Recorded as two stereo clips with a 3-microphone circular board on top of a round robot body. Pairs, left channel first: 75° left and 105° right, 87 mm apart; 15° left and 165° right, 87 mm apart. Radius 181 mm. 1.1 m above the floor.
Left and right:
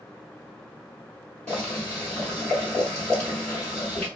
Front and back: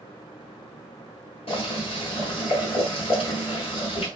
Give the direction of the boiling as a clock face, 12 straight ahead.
12 o'clock.